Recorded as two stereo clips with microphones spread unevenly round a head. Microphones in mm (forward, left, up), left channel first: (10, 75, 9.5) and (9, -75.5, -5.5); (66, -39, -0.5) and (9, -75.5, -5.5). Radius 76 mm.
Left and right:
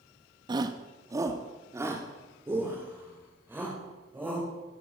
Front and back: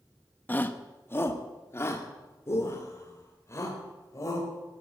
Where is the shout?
30° right, 1.4 m; by 4.5 s 10° right, 5.5 m.